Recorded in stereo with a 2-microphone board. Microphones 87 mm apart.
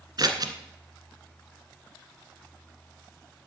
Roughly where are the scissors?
Right.